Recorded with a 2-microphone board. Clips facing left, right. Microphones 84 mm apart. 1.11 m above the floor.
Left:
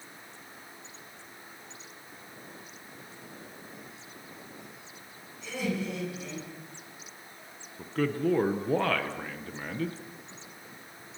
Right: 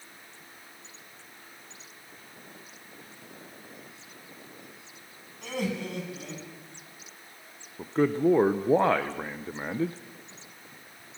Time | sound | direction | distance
5.4 | laughter | 60° right (ahead or behind) | 10 m
7.8 | a man speaking | 25° right (ahead or behind) | 0.8 m